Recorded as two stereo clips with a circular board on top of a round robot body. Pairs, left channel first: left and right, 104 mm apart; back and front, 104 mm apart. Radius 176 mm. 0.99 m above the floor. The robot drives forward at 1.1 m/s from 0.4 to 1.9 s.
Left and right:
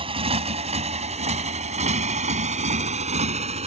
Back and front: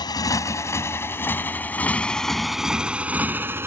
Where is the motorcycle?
130° right; by 3.7 s 70° right.